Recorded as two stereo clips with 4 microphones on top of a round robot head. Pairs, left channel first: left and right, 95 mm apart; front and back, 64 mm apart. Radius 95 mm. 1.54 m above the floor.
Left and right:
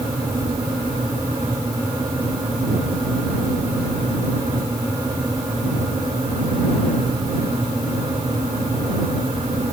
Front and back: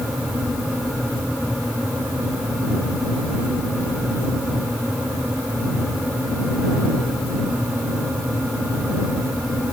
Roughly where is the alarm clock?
No alarm clock in this recording.